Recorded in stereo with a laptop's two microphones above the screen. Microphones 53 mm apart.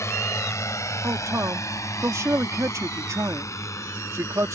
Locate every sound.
0.0 s a drone: 65° left (ahead or behind); by 4.6 s 70° left (ahead or behind)
1.0 s a man speaking: 80° right